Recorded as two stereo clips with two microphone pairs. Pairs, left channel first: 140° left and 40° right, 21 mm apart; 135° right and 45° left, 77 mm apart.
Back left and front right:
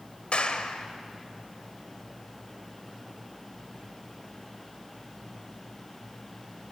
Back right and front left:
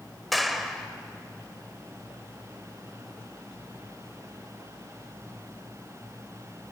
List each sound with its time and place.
0.3 s a clap: 135° left, 1.8 m